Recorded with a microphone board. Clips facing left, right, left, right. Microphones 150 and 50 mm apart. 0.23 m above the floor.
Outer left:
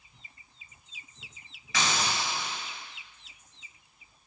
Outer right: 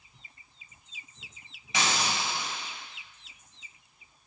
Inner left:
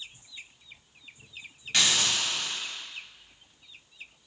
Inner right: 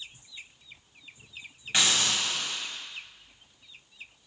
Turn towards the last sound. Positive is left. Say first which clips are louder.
# even, even
turn(degrees=-20)  # may be behind; listen again after turning